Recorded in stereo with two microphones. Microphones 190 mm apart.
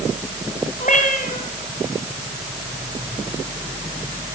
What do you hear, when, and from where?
0.8 s a cat meowing: 45° left (ahead or behind), 5 m